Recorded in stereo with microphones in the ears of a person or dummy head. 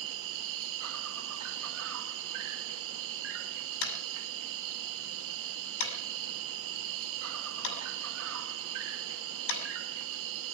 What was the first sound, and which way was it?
An insect, 70° right (ahead or behind).